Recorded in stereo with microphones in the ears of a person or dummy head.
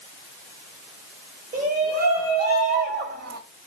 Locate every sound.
1.5 s a shout: 50° right (ahead or behind), 5 m; by 3.4 s 65° right (ahead or behind), 2.5 m